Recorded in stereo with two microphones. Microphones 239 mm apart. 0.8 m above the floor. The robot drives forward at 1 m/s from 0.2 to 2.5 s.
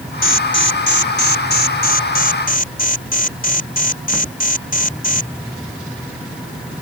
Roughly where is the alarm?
Left.